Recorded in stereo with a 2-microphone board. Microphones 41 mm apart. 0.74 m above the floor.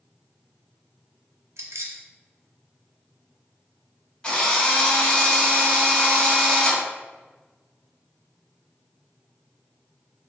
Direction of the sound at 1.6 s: 75° right (ahead or behind).